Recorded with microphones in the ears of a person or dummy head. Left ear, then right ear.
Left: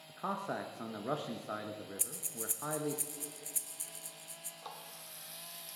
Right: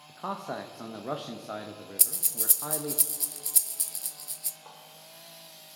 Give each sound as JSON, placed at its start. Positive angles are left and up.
{"t": 0.1, "sound": "a man speaking", "side_deg": -5, "distance_m": 0.8}
{"t": 2.0, "sound": "breathing", "side_deg": -30, "distance_m": 0.9}
{"t": 4.6, "sound": "a running tap", "side_deg": 80, "distance_m": 2.0}